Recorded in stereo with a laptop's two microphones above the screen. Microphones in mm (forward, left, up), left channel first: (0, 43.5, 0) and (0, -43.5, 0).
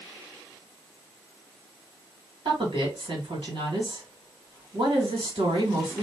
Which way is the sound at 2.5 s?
65° right (ahead or behind).